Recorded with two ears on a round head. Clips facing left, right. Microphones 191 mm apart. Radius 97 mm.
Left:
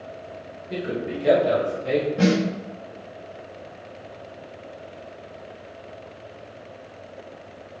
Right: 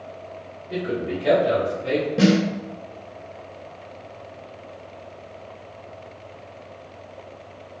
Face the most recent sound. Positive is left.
turn(degrees=-55)  # may be behind; listen again after turning